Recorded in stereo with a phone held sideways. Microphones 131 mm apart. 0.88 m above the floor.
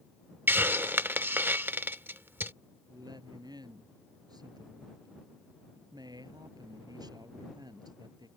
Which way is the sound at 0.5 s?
15° right (ahead or behind).